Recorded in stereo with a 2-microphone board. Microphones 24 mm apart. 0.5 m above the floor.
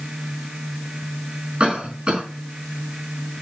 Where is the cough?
45° right (ahead or behind), 4.5 m.